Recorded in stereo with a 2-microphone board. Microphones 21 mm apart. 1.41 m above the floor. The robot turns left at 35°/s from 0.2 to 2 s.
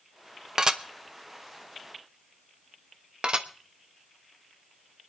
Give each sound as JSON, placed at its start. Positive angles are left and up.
{"t": 0.6, "sound": "dishes clattering", "side_deg": -30, "distance_m": 0.8}
{"t": 3.2, "sound": "dishes clattering", "side_deg": -50, "distance_m": 0.9}